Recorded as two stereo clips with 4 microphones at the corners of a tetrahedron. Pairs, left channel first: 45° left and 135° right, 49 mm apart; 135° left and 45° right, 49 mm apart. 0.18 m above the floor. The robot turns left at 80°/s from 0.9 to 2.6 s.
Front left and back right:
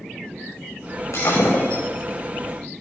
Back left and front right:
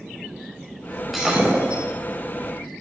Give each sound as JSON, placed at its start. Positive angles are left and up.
{"t": 1.1, "sound": "breaking glass", "azimuth_deg": 40, "distance_m": 6.0}